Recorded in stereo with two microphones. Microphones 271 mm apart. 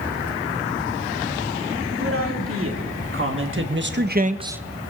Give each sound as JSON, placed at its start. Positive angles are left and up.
{"t": 2.0, "sound": "a man speaking", "side_deg": -55, "distance_m": 3.0}